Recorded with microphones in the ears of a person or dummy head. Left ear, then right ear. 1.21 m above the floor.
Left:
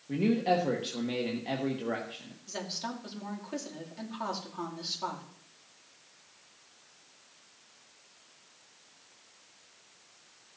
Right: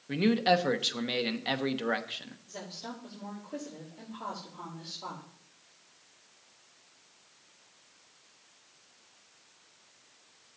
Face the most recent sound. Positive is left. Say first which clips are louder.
# left 7 dB
turn(degrees=65)  # may be behind; listen again after turning